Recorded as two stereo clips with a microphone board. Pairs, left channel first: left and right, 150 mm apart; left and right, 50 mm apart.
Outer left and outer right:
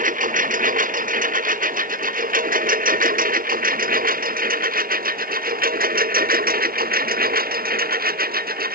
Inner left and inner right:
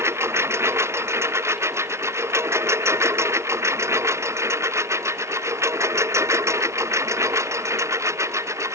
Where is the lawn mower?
60° right (ahead or behind); by 8.8 s 70° right (ahead or behind).